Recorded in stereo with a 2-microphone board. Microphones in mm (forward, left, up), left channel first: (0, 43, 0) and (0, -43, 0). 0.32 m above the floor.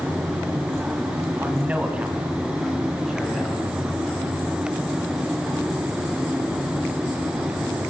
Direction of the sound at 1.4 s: 20° right (ahead or behind).